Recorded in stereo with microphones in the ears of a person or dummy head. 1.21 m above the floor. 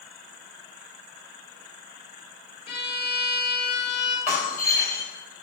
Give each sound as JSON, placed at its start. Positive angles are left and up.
{"t": 2.7, "sound": "a violin", "side_deg": 35, "distance_m": 3.5}
{"t": 4.3, "sound": "breaking glass", "side_deg": 15, "distance_m": 3.0}